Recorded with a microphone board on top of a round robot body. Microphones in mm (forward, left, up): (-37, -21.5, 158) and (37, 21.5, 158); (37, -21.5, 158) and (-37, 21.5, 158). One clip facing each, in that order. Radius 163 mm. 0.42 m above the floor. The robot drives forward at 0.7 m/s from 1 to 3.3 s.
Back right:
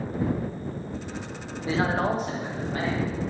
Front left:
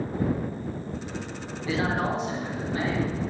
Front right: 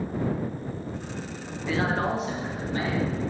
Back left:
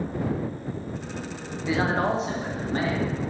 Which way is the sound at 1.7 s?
145° right.